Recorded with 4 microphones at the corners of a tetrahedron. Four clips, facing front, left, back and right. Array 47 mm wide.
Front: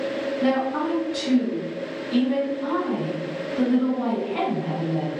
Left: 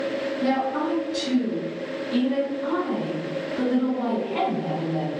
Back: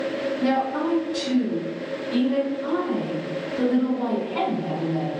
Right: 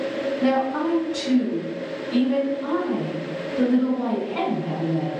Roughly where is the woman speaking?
Ahead right.